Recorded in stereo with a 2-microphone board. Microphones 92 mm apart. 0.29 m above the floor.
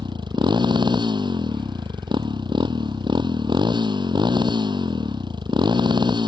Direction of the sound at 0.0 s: 60° right (ahead or behind).